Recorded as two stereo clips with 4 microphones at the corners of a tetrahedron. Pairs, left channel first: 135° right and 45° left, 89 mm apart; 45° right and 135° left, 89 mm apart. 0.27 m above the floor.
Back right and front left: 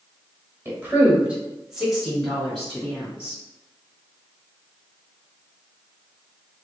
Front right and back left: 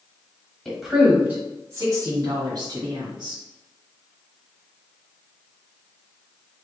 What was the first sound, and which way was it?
A woman speaking, 35° left.